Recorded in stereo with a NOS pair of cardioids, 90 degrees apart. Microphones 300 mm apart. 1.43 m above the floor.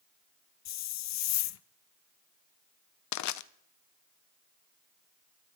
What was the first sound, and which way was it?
A hiss, 60° left.